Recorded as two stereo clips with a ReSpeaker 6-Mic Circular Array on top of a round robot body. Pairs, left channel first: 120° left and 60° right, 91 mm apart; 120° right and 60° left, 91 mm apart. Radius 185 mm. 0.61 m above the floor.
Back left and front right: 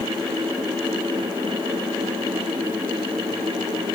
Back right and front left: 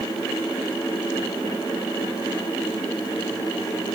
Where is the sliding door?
No sliding door in this recording.